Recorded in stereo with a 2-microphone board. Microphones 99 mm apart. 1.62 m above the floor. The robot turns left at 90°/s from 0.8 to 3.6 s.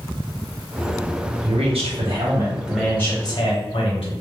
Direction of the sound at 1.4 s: 60° right.